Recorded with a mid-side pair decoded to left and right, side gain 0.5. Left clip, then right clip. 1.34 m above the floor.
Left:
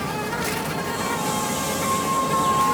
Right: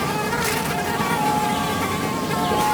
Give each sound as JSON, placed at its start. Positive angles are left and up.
{"t": 0.0, "sound": "an insect", "azimuth_deg": -30}